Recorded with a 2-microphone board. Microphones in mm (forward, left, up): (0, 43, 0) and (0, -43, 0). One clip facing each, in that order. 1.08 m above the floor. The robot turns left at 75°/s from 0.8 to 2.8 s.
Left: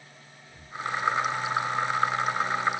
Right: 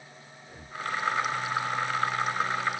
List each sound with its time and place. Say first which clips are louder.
0.4 s breathing: left 1 dB; 55° right (ahead or behind); by 0.8 s 50° right (ahead or behind)